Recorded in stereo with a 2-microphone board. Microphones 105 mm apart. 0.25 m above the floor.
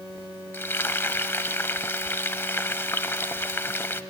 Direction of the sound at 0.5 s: 20° left (ahead or behind).